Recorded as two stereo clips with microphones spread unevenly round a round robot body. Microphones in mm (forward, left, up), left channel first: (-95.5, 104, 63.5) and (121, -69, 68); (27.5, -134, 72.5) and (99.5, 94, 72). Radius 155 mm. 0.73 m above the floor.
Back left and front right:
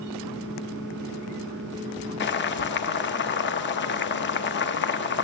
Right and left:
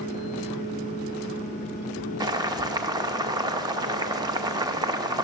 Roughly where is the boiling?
Behind left.